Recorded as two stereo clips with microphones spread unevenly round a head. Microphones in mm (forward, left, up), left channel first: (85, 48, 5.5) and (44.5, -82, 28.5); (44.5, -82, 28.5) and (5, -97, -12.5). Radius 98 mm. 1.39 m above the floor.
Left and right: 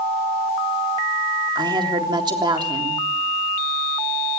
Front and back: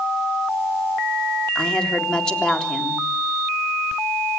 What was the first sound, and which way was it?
A woman speaking, 50° right.